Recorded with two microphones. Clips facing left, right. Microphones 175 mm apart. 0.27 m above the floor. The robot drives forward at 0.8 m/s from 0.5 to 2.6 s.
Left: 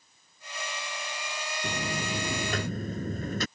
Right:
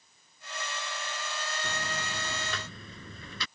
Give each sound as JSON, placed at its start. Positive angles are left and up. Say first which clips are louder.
{"t": 1.6, "sound": "a buzzer", "louder": "left 5 dB", "side_deg": 35}